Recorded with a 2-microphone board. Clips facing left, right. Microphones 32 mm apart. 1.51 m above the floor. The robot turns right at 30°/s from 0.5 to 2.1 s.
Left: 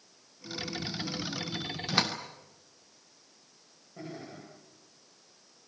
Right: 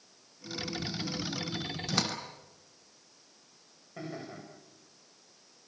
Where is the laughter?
80° right, 8.5 m.